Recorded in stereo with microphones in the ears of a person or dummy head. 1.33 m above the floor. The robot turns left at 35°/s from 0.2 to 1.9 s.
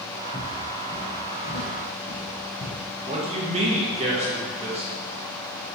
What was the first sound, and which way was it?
Footsteps, 10° right (ahead or behind).